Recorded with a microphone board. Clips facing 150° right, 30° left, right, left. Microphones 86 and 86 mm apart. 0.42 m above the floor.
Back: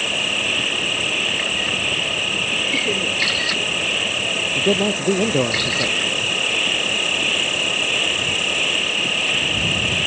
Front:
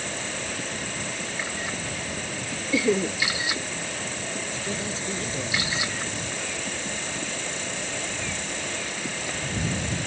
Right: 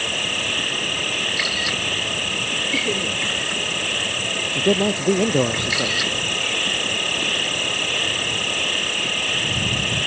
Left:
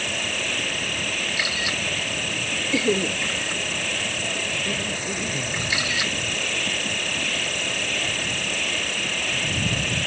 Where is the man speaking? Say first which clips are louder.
Back 12 dB, right 10 dB; 115° right.